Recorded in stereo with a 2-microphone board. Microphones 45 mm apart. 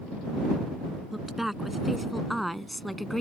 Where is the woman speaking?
5° right (ahead or behind); by 3.2 s 5° left (ahead or behind).